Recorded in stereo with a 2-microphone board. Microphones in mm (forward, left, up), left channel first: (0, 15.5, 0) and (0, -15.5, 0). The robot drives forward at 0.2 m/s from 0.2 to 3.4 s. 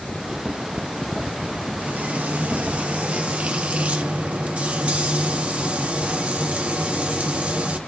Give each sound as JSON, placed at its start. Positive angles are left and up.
{"t": 1.8, "sound": "frying", "side_deg": -60, "distance_m": 1.0}